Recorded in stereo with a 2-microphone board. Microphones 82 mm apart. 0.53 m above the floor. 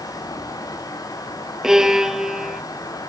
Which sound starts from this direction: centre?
A violin, at 1.6 s.